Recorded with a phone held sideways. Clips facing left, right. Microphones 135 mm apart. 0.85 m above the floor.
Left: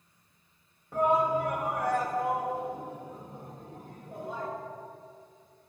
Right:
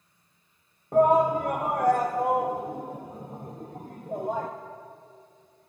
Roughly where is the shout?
Right.